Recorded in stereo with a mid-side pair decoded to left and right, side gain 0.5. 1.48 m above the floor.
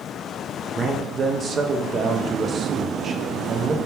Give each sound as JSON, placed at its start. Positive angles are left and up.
{"t": 0.8, "sound": "a man speaking", "azimuth_deg": -40, "distance_m": 0.6}